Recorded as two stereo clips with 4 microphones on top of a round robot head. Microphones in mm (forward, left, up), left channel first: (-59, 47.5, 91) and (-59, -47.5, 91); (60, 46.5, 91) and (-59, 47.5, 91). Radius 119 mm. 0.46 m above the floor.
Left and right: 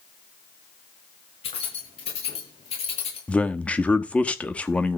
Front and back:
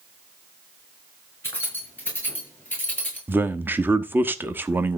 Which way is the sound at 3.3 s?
140° left.